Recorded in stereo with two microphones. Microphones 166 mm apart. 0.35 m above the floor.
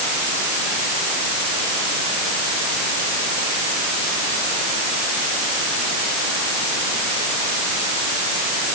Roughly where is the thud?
I don't hear a thud.